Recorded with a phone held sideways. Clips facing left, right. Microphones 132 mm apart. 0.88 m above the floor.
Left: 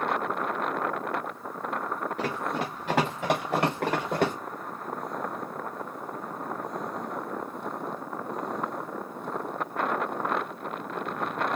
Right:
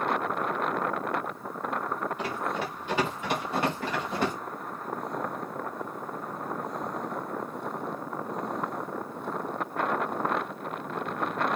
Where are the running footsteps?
80° left, 4 m; by 4.3 s 65° left (ahead or behind), 4.5 m.